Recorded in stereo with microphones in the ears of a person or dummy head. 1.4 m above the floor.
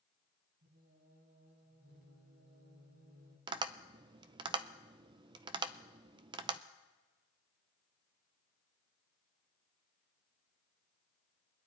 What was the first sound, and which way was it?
Singing, 45° right (ahead or behind).